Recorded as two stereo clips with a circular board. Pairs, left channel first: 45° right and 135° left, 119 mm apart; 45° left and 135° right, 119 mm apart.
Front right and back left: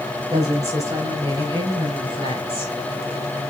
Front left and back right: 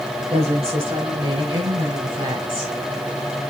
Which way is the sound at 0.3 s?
165° right.